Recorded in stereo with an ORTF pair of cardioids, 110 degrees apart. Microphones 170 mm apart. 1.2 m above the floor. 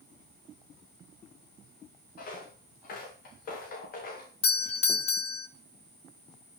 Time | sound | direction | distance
2.2 | footsteps | 60° left | 7.5 m
4.4 | a doorbell | 35° left | 1.4 m